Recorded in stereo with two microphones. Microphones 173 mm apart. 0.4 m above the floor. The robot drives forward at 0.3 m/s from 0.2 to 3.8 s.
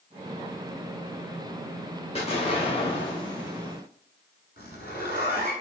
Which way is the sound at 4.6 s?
70° left (ahead or behind).